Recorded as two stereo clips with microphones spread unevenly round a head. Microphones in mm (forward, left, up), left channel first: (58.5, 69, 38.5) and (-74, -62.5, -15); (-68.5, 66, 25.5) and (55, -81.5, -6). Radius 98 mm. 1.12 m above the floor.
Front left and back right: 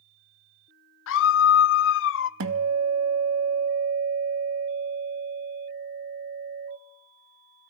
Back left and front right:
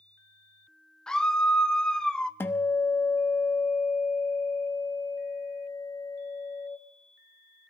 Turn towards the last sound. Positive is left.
turn(degrees=-155)